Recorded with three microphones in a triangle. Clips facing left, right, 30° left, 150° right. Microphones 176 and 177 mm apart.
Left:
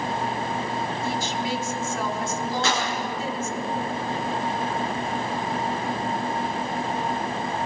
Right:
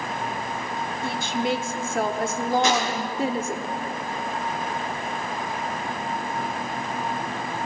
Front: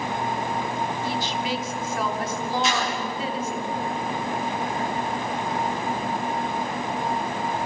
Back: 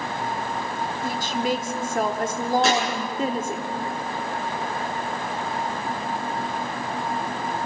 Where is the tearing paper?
165° right, 9.5 m.